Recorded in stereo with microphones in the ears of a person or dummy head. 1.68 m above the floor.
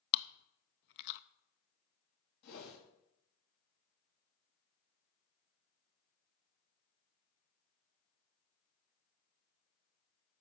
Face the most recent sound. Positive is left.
turn(degrees=70)  # may be behind; listen again after turning